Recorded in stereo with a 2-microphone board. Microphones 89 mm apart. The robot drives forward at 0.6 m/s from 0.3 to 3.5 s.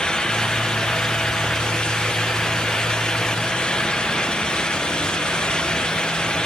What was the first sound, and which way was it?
Only background noise.